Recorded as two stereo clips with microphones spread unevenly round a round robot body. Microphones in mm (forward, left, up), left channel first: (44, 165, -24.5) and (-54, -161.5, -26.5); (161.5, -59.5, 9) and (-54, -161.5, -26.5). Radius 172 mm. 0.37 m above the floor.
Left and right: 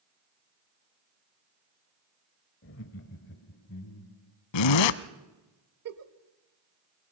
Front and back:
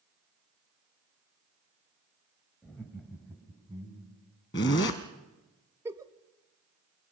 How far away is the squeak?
No squeak in this recording.